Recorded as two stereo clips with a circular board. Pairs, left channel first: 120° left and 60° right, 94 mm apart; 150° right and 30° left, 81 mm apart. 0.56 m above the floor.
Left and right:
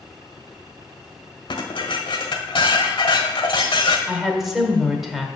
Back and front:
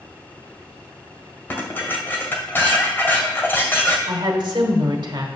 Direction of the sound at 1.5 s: 150° left.